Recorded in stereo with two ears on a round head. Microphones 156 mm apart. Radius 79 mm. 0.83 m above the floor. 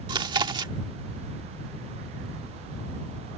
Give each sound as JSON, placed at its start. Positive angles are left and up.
{"t": 0.1, "sound": "chewing", "side_deg": -30}